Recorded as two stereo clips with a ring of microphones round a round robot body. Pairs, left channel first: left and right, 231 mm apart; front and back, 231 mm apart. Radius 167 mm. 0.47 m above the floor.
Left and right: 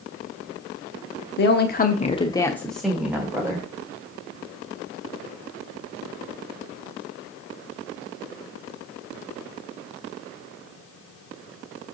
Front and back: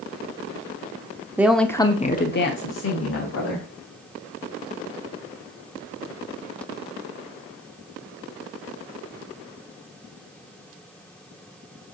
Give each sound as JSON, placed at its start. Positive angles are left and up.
{"t": 1.4, "sound": "a woman speaking", "azimuth_deg": 100, "distance_m": 0.9}